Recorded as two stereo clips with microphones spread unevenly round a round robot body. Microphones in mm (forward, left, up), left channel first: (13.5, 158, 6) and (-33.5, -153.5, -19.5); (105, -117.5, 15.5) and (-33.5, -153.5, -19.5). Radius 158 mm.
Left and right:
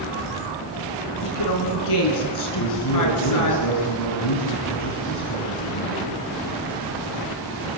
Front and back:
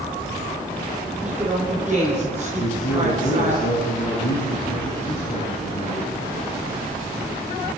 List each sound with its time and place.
1.2 s a woman speaking: 110° left, 5.5 m
2.5 s a man speaking: 50° left, 6 m